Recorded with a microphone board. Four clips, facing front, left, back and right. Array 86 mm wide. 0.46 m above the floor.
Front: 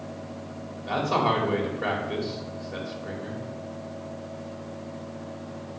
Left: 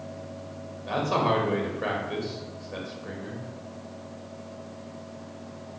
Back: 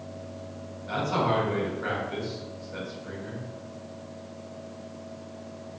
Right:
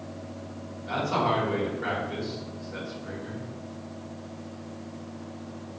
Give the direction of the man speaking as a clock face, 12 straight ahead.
11 o'clock.